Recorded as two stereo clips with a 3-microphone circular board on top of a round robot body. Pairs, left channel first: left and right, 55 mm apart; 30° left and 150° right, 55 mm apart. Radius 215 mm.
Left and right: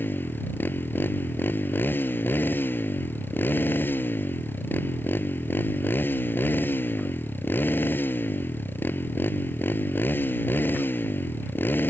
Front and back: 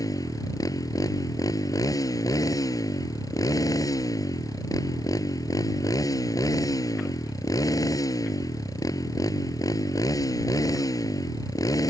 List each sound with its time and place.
0.0 s a motorcycle: 35° left